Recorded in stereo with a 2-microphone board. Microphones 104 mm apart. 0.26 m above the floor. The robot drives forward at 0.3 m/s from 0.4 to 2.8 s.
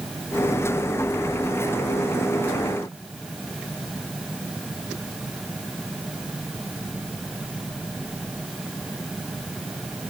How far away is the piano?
No piano in this recording.